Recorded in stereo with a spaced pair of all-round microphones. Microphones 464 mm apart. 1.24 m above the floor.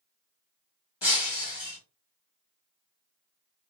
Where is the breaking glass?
70° left (ahead or behind), 1.8 m.